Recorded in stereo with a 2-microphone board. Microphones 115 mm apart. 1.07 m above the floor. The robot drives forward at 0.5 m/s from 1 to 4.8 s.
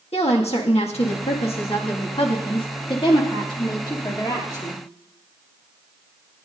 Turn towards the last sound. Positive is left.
turn(degrees=35)  # may be behind; listen again after turning